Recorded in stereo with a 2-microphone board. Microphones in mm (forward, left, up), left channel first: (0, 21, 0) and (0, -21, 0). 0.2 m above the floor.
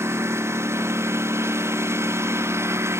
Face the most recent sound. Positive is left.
turn(degrees=-90)